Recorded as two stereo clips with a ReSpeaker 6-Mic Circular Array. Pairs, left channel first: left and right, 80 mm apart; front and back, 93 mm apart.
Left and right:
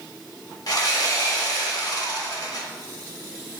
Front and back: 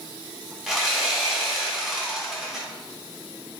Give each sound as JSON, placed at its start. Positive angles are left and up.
{"t": 0.7, "sound": "sawing", "azimuth_deg": 95, "distance_m": 1.1}